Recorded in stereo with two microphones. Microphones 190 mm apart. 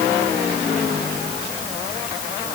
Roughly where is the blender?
No blender in this recording.